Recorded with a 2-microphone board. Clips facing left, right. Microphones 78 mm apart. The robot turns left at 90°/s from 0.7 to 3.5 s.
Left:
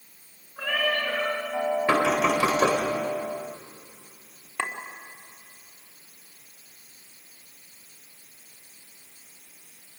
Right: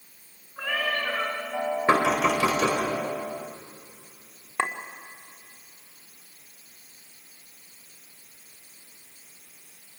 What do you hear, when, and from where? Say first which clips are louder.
0.6 s a cat meowing: left 2 dB; 10° right, 5.5 m; by 1.4 s 70° right, 5.5 m
1.9 s knocking: right 2 dB; 155° right, 3.5 m; by 2.8 s 125° left, 3.5 m
4.6 s a clink: right 3 dB; 25° right (ahead or behind), 1.3 m